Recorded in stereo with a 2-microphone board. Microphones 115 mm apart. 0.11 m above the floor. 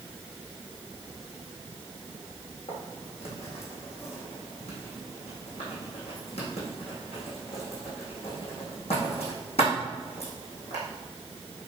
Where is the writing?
70° left (ahead or behind), 4.5 m.